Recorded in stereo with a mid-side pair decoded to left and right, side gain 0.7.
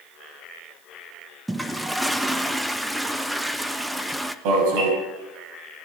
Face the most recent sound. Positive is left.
turn(degrees=-70)